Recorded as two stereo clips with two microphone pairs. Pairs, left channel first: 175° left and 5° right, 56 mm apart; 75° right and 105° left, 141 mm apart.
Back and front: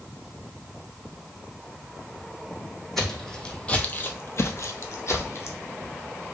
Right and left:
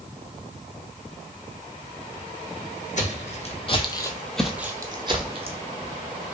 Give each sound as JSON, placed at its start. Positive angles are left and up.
{"t": 3.0, "sound": "footsteps", "azimuth_deg": -100, "distance_m": 0.9}